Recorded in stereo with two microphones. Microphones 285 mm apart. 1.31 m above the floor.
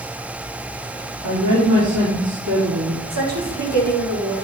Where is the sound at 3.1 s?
65° right (ahead or behind), 3.5 m.